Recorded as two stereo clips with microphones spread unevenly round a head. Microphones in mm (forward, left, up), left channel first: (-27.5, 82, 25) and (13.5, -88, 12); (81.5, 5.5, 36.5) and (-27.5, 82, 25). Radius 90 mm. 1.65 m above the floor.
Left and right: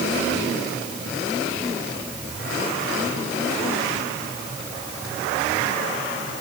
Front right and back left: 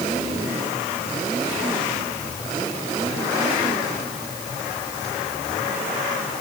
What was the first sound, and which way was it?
Only background noise.